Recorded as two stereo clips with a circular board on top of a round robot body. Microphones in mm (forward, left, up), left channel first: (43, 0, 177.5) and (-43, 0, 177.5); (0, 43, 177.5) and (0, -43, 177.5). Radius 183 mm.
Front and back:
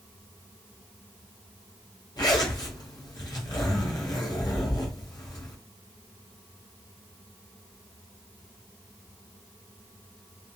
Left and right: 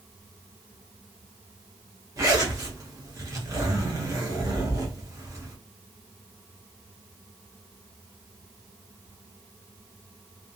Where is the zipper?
40° right, 1.0 m.